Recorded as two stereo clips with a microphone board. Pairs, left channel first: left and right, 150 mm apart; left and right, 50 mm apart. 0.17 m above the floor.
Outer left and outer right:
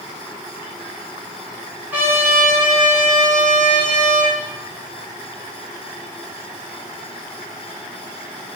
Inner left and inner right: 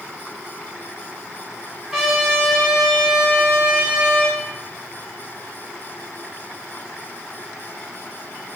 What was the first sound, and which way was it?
A trumpet, 10° right (ahead or behind).